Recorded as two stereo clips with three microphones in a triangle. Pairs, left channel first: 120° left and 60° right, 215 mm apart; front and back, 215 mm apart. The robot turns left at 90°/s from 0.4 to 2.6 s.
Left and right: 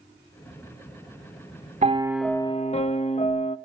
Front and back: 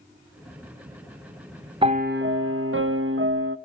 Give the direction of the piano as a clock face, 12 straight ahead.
4 o'clock.